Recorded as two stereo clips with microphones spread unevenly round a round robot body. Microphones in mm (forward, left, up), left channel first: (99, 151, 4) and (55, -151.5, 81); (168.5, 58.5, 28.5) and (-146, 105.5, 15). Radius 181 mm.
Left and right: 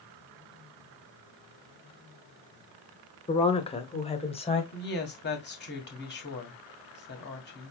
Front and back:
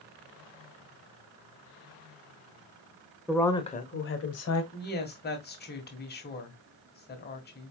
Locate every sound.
3.3 s a woman speaking: 95° left, 1.1 m; by 4.6 s 20° left, 1.9 m
4.7 s a woman speaking: 45° left, 1.9 m